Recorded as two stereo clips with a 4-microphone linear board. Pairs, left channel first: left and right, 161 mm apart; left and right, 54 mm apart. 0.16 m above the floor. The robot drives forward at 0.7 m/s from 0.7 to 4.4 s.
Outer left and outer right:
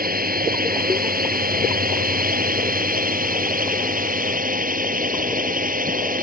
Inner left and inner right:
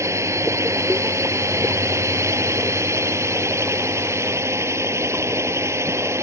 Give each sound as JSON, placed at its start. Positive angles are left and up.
{"t": 0.0, "sound": "a drone", "side_deg": -65}